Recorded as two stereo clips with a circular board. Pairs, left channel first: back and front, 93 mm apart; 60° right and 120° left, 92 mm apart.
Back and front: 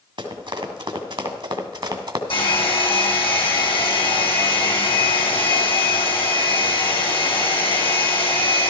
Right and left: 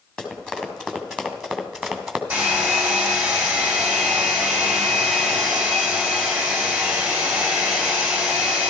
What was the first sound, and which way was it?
Running footsteps, 20° left.